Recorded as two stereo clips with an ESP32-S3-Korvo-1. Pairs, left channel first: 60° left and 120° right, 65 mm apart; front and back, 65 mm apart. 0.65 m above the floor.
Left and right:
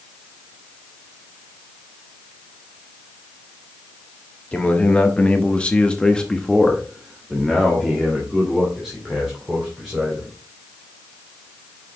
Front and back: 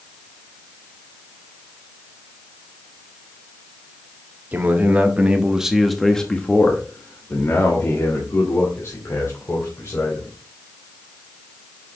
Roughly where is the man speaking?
Behind left.